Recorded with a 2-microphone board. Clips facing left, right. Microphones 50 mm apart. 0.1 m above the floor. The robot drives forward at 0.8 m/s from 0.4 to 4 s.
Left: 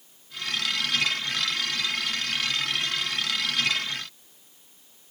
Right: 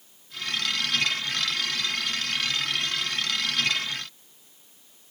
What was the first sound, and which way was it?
Only background noise.